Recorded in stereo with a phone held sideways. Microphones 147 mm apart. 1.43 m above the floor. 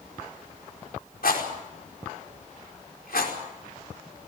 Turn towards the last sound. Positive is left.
turn(degrees=85)